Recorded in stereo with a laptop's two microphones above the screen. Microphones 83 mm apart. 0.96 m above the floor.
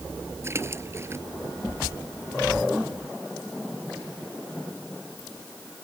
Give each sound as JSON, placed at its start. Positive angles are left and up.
{"t": 0.4, "sound": "a splash", "side_deg": -30}